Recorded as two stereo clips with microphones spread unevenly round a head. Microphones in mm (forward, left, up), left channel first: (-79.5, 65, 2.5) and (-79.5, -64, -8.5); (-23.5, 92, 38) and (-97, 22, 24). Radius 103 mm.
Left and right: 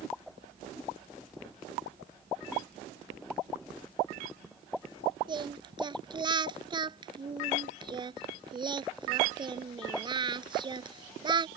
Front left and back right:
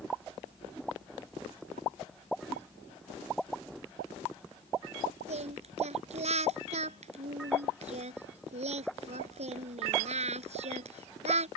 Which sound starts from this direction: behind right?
Singing, at 5.3 s.